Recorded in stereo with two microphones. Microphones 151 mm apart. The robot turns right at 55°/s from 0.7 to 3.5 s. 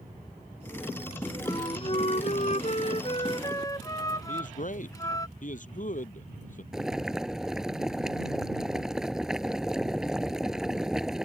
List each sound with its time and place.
1.4 s a flute: 35° left; by 5.3 s 150° left
4.3 s a man speaking: 60° left (ahead or behind)
6.7 s boiling: 5° right (ahead or behind)